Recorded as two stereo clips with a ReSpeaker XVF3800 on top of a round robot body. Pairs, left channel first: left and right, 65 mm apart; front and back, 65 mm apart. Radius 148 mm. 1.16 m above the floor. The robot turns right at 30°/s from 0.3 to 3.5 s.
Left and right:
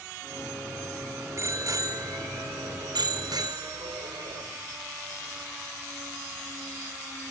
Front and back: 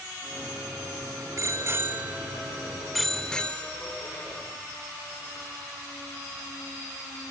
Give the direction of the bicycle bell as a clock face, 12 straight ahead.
5 o'clock.